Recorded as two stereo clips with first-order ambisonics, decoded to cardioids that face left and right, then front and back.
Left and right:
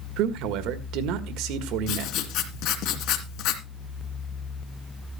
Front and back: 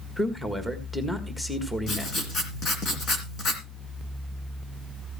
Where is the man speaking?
85° right, 1.4 m.